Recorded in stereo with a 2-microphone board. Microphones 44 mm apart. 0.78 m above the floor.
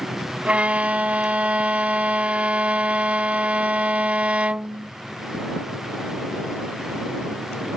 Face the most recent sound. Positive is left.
turn(degrees=-25)  # may be behind; listen again after turning